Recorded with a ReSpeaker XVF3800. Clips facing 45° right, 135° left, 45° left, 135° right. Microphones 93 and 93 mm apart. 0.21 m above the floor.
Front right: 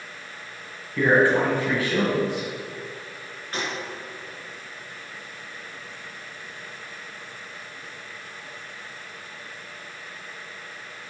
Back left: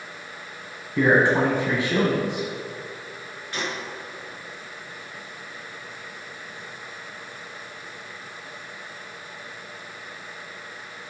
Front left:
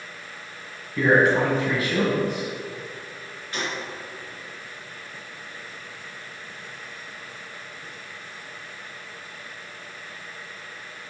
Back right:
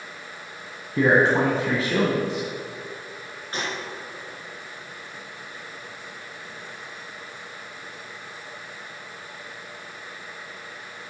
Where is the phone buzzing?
No phone buzzing in this recording.